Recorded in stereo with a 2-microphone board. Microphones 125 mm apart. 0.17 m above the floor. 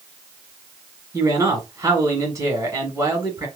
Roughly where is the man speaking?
Right.